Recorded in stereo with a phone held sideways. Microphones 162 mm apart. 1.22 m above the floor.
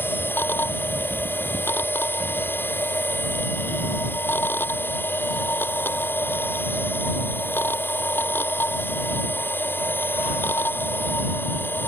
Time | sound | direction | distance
0.0 | a machine running | 10° left (ahead or behind) | ?